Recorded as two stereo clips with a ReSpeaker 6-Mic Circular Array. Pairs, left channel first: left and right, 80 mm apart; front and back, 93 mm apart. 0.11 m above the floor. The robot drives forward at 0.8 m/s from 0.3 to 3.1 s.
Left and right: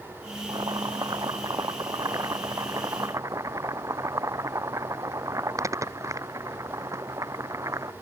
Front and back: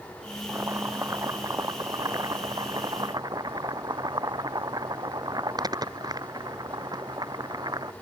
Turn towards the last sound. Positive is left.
turn(degrees=-135)